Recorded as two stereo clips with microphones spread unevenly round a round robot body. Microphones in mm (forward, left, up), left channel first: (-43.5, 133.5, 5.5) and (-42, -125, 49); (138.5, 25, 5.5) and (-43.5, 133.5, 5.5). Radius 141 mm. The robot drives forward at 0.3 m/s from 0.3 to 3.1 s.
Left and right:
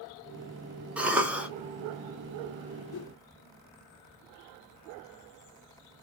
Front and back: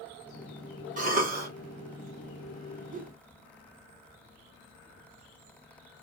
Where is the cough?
175° left, 0.9 m.